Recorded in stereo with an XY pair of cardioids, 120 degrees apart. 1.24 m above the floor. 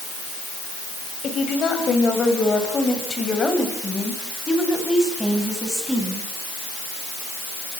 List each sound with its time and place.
1.2 s a woman speaking: 45° left, 8 m; by 6.3 s straight ahead, 10 m